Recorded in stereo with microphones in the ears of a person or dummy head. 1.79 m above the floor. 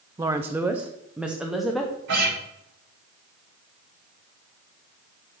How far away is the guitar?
About 3 m.